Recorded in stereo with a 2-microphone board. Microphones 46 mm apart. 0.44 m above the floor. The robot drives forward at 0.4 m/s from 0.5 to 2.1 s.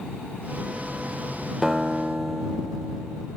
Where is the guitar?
5° right (ahead or behind), 1.2 m; by 3.3 s 10° right (ahead or behind), 1.0 m.